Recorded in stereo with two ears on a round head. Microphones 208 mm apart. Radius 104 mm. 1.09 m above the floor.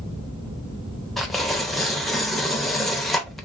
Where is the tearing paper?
Centre (ahead or behind), 0.6 m.